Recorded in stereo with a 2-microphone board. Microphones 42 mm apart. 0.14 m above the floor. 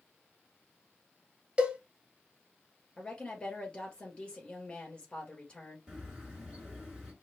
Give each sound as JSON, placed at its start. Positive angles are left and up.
{"t": 1.6, "sound": "a cowbell", "side_deg": -25, "distance_m": 0.9}
{"t": 3.0, "sound": "a woman speaking", "side_deg": 20, "distance_m": 2.0}
{"t": 5.9, "sound": "a bird", "side_deg": -20, "distance_m": 2.0}